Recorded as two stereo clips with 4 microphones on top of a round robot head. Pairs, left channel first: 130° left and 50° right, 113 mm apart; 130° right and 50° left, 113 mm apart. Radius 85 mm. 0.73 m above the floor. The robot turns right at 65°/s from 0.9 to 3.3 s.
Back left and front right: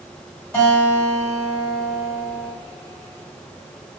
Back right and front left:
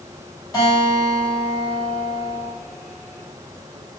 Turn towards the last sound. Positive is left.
turn(degrees=-15)